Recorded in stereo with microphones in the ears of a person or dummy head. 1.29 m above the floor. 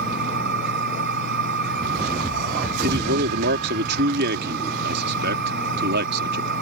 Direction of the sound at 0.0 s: 60° right (ahead or behind).